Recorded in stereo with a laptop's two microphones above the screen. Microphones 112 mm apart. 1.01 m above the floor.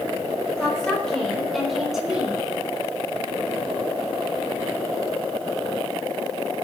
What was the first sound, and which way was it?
A woman speaking, 10° left (ahead or behind).